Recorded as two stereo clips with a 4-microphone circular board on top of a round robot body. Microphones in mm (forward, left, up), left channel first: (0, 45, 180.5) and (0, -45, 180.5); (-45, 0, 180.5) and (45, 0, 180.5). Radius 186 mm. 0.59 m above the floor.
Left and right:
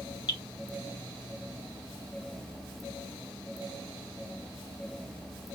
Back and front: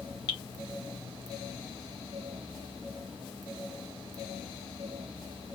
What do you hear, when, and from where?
0.3 s dripping: 135° left, 1.5 m